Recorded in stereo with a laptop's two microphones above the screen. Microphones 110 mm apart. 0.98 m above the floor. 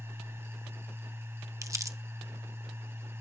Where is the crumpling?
30° right (ahead or behind), 0.6 m.